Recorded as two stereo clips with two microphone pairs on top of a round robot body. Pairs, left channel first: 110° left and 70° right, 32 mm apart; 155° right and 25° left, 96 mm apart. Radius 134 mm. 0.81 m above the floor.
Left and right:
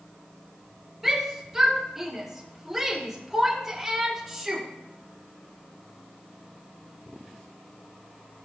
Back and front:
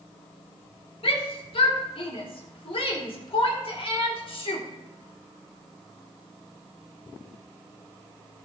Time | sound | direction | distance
1.0 | a shout | 140° right | 3.5 m